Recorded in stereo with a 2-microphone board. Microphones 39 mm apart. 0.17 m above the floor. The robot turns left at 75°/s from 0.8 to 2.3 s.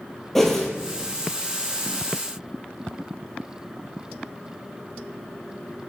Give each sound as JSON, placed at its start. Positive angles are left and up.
{"t": 0.3, "sound": "a whoosh", "side_deg": 5, "distance_m": 0.7}